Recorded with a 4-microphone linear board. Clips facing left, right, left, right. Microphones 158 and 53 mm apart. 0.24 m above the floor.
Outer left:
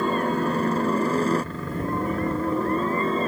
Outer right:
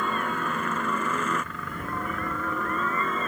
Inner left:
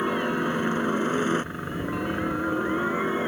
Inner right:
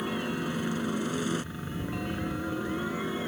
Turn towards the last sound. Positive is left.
turn(degrees=30)  # may be behind; listen again after turning